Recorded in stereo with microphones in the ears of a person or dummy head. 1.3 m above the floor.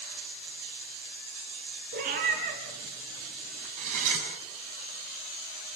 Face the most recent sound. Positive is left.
turn(degrees=-45)  # may be behind; listen again after turning